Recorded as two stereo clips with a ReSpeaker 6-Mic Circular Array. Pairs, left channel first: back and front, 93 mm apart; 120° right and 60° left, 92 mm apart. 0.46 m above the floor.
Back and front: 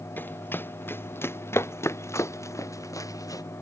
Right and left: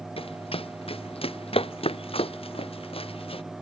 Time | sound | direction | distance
0.2 | running footsteps | 110° right | ?